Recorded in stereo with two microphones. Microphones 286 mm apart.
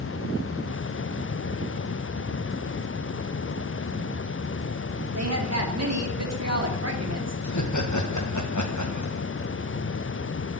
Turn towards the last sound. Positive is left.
turn(degrees=85)